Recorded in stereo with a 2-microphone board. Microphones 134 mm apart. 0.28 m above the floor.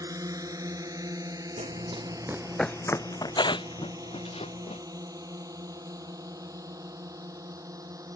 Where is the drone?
25° right (ahead or behind).